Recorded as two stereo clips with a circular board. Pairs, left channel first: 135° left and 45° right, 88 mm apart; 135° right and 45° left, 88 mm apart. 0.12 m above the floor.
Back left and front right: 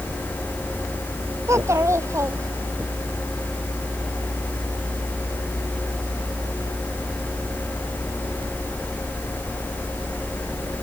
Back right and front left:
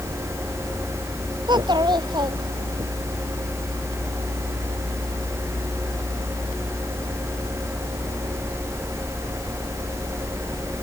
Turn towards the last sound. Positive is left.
turn(degrees=10)